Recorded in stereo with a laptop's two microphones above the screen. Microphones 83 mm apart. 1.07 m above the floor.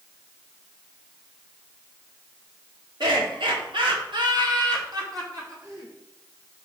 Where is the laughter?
75° right (ahead or behind), 2.5 m; by 5.9 s 40° right (ahead or behind), 3 m.